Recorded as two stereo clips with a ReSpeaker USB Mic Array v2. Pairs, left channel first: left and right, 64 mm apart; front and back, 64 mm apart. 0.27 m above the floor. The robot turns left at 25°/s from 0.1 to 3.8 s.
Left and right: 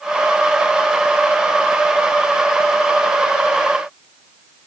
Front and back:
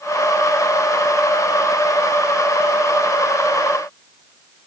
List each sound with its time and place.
Only background noise.